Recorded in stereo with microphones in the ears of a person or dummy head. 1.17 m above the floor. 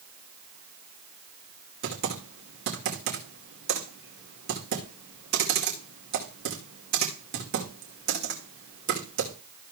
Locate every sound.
1.8 s typing on a keyboard: 60° right (ahead or behind), 2.5 m